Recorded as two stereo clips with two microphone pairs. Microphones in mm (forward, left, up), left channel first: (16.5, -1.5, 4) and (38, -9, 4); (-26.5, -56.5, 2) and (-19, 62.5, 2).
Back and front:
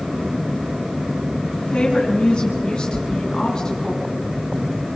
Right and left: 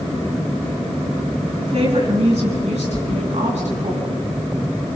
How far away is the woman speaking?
About 8 m.